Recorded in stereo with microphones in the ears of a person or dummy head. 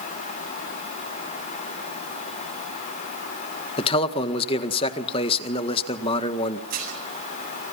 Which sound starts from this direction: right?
Dishes clattering, at 6.7 s.